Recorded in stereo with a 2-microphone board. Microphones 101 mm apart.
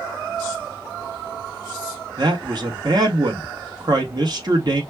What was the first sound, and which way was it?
A man speaking, 45° right (ahead or behind).